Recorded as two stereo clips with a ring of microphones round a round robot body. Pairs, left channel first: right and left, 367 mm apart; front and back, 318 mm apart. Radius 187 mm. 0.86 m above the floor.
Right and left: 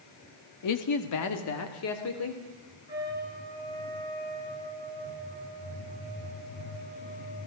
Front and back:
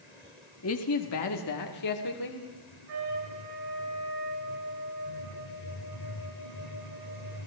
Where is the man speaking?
50° right, 1.5 m; by 2.4 s 35° right, 3 m.